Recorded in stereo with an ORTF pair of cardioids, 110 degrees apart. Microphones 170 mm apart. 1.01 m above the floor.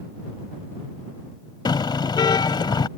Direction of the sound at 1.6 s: 25° left.